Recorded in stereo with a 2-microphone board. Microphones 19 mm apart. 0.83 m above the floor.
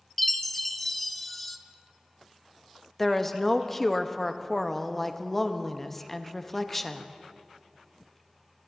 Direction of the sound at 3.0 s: 10° left (ahead or behind).